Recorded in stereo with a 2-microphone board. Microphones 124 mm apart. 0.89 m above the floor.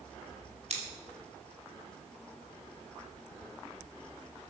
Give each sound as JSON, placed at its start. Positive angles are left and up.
{"t": 0.7, "sound": "scissors", "side_deg": -55, "distance_m": 3.0}